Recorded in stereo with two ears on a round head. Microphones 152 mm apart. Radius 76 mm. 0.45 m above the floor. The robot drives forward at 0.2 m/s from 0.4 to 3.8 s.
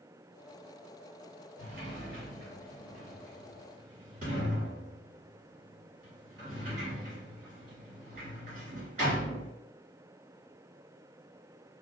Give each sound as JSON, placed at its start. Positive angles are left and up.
{"t": 1.6, "sound": "a sliding door", "side_deg": -55, "distance_m": 1.9}